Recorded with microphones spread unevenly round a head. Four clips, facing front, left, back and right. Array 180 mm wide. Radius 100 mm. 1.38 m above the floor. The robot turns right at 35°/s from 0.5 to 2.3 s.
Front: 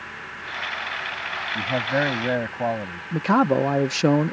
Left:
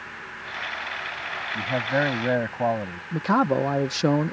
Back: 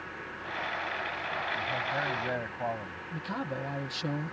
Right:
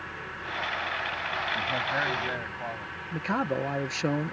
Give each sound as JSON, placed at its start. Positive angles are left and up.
{"t": 1.6, "sound": "a man speaking", "azimuth_deg": 25}
{"t": 3.1, "sound": "a man speaking", "azimuth_deg": 25}